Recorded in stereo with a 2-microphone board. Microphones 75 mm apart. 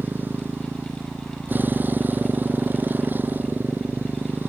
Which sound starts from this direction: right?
A motorcycle, at 0.0 s.